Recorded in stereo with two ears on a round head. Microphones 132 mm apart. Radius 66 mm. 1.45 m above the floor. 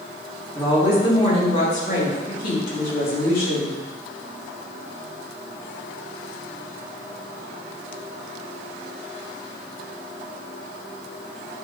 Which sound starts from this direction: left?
A woman speaking, at 0.6 s.